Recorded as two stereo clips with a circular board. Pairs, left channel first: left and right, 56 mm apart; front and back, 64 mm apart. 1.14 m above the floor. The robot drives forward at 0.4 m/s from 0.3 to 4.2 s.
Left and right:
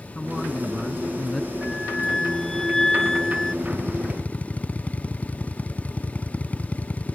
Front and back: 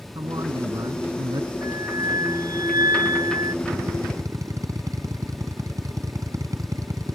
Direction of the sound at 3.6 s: 155° left.